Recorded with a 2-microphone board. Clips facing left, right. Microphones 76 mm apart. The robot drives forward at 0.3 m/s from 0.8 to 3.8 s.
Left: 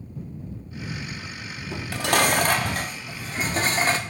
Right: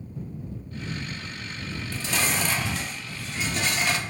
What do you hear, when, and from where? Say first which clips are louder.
1.7 s dishes clattering: left 8 dB; 70° left (ahead or behind), 0.6 m; by 4.0 s 35° left (ahead or behind), 0.9 m